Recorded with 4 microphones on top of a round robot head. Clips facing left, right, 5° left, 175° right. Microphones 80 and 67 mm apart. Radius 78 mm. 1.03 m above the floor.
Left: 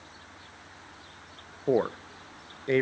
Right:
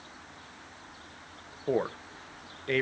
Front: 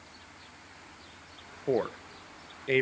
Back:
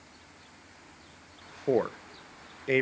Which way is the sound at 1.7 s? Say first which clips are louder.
Left 4 dB, back 2 dB; 120° left.